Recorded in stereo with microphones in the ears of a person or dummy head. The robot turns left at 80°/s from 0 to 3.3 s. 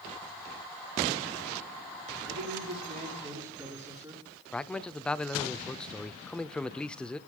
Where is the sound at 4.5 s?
10° left (ahead or behind), 0.6 m.